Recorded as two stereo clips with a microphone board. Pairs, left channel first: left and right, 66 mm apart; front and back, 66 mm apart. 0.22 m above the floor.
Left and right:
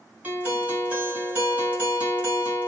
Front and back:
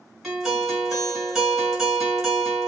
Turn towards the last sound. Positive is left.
turn(degrees=-100)